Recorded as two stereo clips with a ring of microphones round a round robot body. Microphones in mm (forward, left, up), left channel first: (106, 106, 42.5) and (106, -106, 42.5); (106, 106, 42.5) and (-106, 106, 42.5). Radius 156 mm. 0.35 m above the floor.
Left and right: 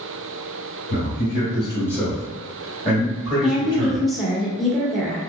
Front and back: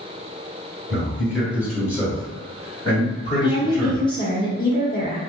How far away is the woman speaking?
About 0.8 m.